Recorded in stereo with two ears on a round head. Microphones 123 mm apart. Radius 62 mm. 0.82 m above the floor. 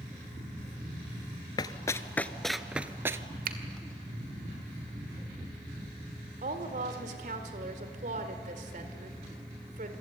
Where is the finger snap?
70° right (ahead or behind), 2 m.